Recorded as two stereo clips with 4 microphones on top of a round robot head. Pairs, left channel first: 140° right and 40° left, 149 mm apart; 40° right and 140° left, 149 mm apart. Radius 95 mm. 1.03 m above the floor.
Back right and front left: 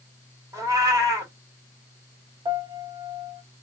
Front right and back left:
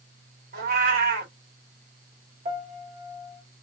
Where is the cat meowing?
110° left, 1.4 m.